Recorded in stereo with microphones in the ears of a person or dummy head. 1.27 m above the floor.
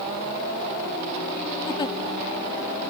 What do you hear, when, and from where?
1.7 s a giggle: 20° left (ahead or behind), 1.7 m